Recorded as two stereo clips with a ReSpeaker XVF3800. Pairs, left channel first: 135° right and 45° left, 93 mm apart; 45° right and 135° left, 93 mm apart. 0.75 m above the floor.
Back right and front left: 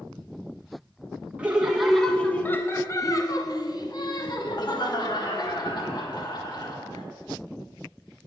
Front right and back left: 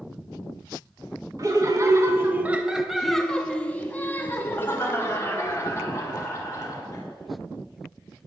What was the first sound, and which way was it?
Laughter, 115° left.